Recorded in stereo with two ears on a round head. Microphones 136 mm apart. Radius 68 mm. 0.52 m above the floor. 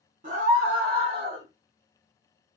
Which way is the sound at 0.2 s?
50° right (ahead or behind).